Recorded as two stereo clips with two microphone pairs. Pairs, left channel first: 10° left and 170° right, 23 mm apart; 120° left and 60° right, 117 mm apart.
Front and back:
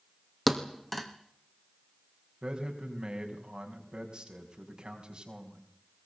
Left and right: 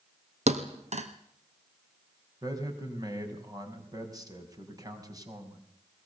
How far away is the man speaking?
About 5.5 m.